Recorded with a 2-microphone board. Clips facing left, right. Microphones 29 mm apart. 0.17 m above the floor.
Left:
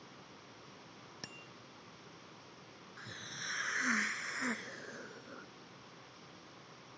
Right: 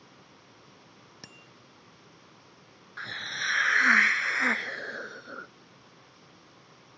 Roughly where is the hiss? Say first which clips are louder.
Right 13 dB; right.